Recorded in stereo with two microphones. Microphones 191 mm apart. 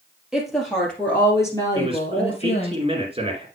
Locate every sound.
0.3 s a woman speaking: centre (ahead or behind), 2.5 m; by 2.8 s 35° left (ahead or behind), 2.5 m
1.8 s a man speaking: 30° right (ahead or behind), 1.9 m